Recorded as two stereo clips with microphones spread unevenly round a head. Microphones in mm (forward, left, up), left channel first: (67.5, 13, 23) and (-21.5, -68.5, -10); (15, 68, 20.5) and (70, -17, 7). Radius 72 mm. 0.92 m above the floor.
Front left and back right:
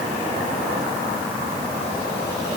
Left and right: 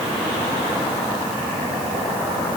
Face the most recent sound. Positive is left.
No sound to turn to.